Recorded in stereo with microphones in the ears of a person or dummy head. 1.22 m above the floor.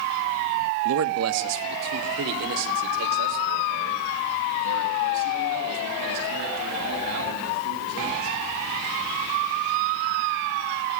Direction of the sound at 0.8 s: 80° right.